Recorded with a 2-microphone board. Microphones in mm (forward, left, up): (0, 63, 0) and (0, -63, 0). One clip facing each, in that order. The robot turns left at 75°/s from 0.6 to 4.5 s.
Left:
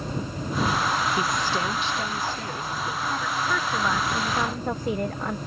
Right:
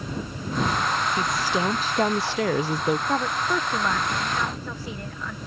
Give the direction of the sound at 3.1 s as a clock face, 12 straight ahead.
4 o'clock.